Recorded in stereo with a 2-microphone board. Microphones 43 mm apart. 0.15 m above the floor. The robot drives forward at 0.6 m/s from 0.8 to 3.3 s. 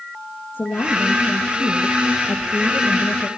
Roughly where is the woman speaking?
Left.